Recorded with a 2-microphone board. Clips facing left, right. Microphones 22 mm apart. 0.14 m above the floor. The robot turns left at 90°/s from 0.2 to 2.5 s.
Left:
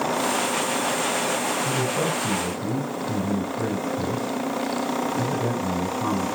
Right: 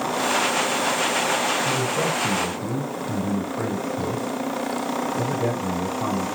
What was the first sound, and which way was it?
A man speaking, 10° left.